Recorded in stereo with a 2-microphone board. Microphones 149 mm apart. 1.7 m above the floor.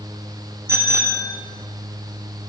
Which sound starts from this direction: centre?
A bicycle bell, at 0.7 s.